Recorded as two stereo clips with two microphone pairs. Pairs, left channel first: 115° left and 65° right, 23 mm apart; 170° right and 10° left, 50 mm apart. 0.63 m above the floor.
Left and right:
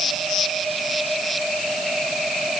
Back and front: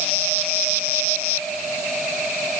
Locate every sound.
Only background noise.